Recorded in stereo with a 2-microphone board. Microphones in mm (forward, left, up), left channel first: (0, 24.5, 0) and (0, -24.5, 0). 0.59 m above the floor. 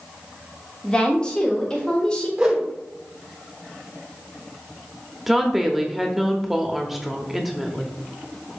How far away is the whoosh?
About 2 m.